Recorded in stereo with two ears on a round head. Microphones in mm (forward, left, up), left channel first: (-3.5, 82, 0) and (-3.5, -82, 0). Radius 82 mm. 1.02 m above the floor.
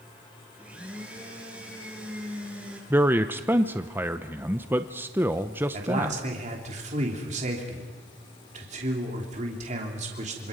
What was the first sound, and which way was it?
A blender, 5° right (ahead or behind).